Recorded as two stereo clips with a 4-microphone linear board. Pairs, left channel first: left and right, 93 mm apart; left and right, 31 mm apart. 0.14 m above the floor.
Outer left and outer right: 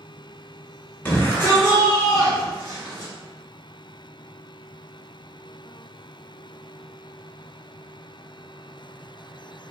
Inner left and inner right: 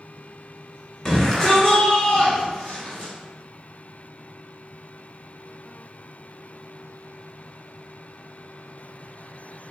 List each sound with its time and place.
1.1 s a shout: 15° left (ahead or behind), 1.5 m; by 3.1 s 35° left (ahead or behind), 1.7 m